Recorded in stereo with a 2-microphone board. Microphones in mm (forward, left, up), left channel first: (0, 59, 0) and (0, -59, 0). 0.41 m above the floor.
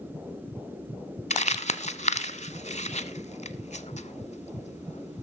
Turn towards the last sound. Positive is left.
turn(degrees=75)  # may be behind; listen again after turning